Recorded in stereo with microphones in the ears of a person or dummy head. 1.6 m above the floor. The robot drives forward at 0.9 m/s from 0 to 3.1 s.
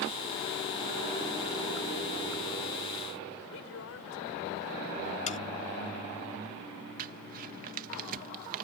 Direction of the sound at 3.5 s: 75° left (ahead or behind).